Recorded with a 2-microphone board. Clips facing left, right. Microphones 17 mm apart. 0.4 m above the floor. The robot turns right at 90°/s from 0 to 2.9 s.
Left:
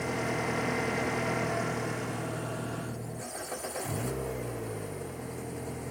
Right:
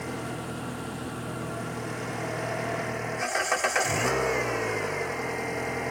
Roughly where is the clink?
No clink in this recording.